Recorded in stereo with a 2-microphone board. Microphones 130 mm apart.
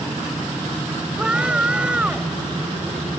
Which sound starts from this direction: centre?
A scream, at 1.2 s.